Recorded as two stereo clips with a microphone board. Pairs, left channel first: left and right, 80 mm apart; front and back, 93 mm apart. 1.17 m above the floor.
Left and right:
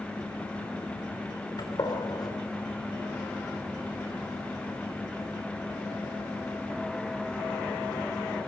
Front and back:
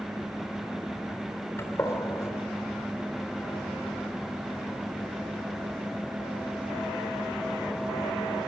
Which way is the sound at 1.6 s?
60° left.